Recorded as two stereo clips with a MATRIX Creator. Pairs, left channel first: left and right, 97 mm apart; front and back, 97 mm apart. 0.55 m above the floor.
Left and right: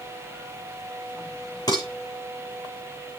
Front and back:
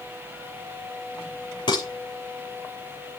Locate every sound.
1.7 s dishes clattering: 40° left, 8 m